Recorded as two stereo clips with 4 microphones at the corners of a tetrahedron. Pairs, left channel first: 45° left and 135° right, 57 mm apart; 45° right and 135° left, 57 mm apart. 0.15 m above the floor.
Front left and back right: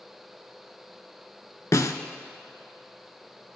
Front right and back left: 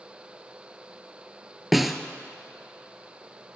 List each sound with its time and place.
1.7 s a snare drum: 45° left, 0.6 m